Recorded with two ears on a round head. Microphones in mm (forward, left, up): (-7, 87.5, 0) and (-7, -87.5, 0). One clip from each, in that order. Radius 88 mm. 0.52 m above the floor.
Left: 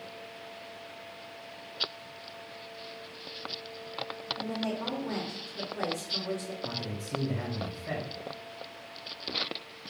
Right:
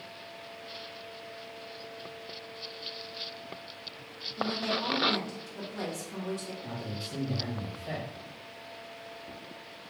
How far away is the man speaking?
About 2 m.